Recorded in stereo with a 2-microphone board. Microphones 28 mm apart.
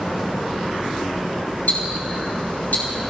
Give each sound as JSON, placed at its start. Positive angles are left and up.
{"t": 1.7, "sound": "ticking", "side_deg": 75, "distance_m": 4.0}